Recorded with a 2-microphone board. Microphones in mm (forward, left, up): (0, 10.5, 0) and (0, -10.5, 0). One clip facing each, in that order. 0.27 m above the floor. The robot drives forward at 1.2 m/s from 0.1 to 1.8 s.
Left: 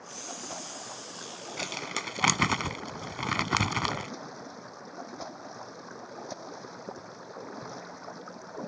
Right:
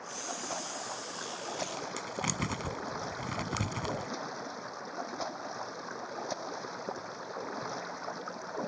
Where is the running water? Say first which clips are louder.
Right 2 dB; 10° right (ahead or behind).